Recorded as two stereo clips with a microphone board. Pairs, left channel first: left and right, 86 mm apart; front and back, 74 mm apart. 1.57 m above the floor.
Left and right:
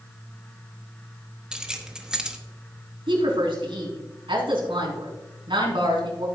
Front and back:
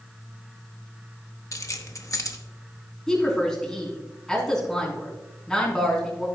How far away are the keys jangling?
About 1.0 m.